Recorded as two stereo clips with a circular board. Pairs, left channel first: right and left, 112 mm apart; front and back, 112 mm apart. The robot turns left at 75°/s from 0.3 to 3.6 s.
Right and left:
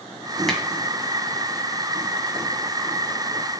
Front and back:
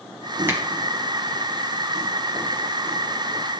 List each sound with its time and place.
0.5 s a finger snap: 170° right, 1.4 m; by 0.6 s straight behind, 1.4 m